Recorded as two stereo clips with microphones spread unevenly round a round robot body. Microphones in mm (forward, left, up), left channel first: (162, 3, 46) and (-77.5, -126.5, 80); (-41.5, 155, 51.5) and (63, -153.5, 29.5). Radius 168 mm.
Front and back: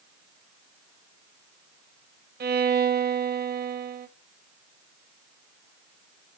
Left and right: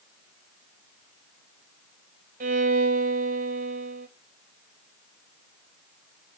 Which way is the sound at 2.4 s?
110° right.